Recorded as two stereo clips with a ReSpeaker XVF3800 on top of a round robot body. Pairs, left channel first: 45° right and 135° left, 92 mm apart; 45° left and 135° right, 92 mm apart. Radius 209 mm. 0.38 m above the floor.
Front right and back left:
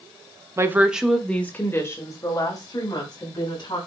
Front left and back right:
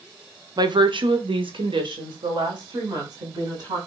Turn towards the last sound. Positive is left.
turn(degrees=-90)